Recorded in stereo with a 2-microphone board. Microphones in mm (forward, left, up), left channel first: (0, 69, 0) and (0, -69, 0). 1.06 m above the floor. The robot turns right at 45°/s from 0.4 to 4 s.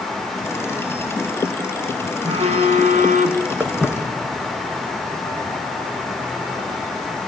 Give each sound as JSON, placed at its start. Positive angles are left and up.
{"t": 2.2, "sound": "a phone buzzing", "azimuth_deg": -130, "distance_m": 1.7}
{"t": 3.6, "sound": "footsteps", "side_deg": -10, "distance_m": 3.0}